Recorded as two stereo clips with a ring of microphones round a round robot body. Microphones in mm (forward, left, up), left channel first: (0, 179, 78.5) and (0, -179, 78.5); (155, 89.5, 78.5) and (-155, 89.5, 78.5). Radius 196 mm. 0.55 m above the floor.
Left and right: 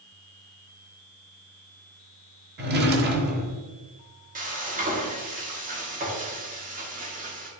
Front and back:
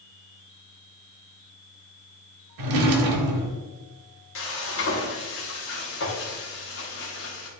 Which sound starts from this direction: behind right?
A drawer, at 2.6 s.